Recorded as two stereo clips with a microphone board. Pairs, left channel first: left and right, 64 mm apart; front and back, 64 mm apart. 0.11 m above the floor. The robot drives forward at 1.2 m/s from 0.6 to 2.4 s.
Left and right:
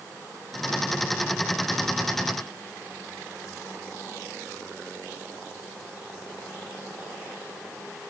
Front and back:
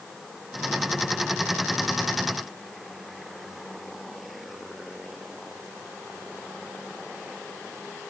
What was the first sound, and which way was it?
Only background noise.